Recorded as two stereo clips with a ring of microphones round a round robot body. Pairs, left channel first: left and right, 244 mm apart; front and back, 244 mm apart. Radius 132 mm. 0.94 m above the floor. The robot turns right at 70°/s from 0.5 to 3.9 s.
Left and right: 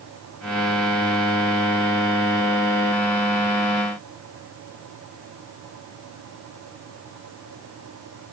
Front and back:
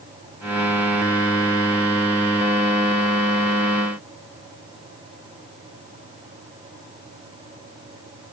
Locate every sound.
Only background noise.